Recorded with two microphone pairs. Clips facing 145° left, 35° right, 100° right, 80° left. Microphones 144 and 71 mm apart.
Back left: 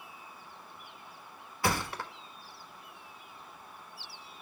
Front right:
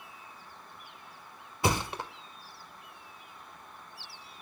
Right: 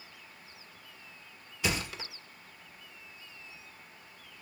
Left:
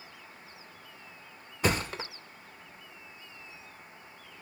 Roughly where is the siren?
I don't hear a siren.